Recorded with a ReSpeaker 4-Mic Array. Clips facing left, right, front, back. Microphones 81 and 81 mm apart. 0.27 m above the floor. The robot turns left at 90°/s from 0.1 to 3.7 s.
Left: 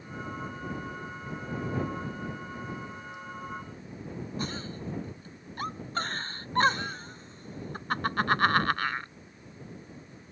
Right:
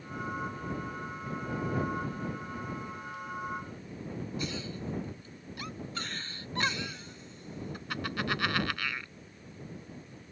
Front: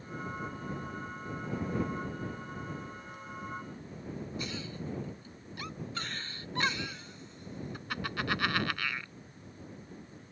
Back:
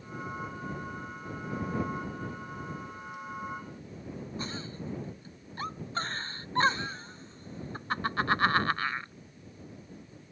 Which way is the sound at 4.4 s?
130° left.